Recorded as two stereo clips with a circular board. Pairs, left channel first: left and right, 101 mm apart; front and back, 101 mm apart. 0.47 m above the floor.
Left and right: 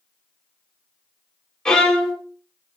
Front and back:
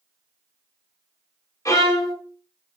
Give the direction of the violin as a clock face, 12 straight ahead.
12 o'clock.